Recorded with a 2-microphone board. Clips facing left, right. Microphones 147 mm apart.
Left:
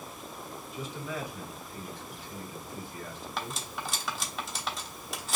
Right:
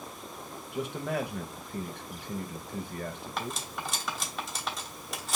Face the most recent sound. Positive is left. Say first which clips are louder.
# right 1 dB
turn(degrees=0)  # may be behind; listen again after turning